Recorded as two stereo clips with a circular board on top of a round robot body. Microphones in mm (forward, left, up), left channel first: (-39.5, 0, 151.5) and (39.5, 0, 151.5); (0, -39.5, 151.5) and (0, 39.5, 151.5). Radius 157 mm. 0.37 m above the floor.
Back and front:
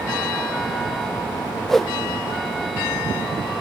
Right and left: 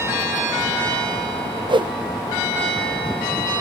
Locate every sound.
1.7 s a whoosh: 95° left, 1.0 m